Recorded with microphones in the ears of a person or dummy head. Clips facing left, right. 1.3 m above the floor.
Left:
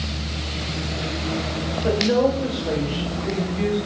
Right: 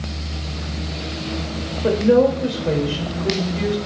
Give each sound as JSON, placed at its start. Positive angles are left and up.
{"t": 1.8, "sound": "a woman speaking", "side_deg": -50, "distance_m": 2.5}